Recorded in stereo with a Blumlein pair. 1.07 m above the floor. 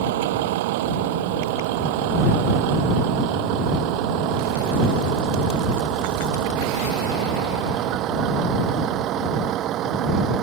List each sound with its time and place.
0.0 s a vehicle: 50° right; by 10.4 s 35° right